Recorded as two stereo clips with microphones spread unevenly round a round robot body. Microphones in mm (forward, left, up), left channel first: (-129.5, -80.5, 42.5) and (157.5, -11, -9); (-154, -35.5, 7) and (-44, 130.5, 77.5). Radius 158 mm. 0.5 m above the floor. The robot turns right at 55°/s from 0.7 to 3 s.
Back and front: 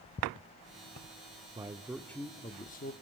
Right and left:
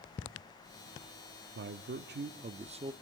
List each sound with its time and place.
1.6 s a man speaking: 65° left, 0.9 m; by 2.9 s 140° left, 0.9 m